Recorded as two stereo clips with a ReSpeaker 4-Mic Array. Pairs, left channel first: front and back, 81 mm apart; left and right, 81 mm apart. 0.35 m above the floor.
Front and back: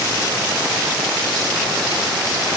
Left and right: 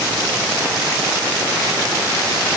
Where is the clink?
No clink in this recording.